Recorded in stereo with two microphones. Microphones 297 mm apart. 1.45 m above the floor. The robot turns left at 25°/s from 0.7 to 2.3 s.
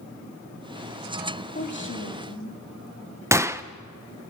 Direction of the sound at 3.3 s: 10° right (ahead or behind).